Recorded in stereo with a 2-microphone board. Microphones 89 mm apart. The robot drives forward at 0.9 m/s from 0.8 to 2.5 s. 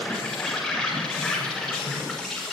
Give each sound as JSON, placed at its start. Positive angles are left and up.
{"t": 0.0, "sound": "an insect", "side_deg": 0, "distance_m": 7.5}